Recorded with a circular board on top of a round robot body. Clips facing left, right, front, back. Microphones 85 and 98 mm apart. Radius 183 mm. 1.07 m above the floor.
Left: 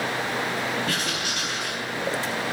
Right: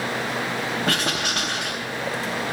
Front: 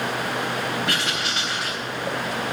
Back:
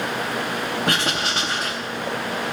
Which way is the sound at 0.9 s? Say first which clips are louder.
Right 4 dB, back 3 dB; 135° right.